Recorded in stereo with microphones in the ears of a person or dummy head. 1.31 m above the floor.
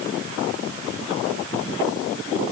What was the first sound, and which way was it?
Only background noise.